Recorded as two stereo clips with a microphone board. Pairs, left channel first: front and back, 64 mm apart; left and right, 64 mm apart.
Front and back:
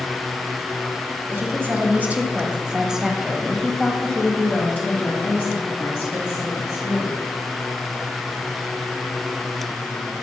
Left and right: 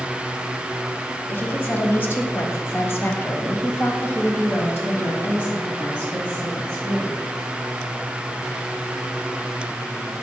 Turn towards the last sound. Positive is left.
turn(degrees=30)